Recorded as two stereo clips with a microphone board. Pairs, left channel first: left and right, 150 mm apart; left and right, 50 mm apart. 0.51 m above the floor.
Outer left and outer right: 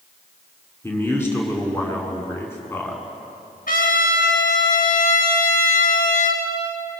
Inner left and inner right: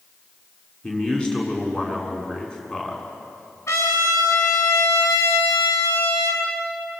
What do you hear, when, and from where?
0.8 s a man speaking: 15° left (ahead or behind), 6.5 m
3.7 s a trumpet: 70° left (ahead or behind), 4.5 m